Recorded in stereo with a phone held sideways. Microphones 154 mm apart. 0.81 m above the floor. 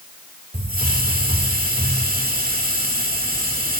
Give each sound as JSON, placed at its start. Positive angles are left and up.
{"t": 0.5, "sound": "a hiss", "side_deg": -70, "distance_m": 2.0}